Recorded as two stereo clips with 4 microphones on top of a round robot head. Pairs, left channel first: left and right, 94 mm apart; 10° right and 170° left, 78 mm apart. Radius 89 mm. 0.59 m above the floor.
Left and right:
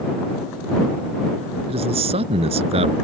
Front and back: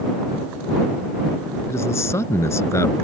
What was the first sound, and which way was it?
A man speaking, 70° right.